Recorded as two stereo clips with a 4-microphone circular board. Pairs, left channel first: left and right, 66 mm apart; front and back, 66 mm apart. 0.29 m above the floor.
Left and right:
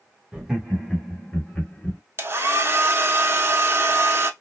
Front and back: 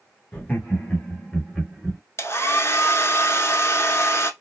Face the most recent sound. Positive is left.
turn(degrees=-40)